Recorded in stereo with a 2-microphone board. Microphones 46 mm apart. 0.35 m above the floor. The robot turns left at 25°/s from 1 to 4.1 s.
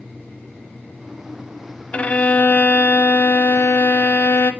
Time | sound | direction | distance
1.9 | a violin | 150° left | 0.7 m